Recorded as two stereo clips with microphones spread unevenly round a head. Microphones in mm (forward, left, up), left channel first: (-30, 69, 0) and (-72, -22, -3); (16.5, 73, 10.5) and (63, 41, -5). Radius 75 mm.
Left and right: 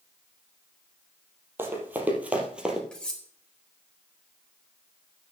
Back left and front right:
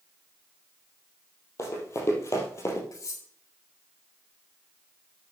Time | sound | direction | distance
1.6 | running footsteps | straight behind | 3.5 m
2.9 | cutlery clinking | 145° left | 4.5 m